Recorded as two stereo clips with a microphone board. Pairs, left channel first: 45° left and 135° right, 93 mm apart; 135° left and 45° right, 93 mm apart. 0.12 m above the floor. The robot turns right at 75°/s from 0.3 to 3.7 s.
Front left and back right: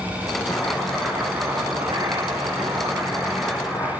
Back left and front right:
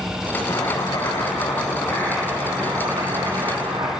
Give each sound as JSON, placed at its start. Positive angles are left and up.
{"t": 0.5, "sound": "chopping", "azimuth_deg": 95, "distance_m": 4.5}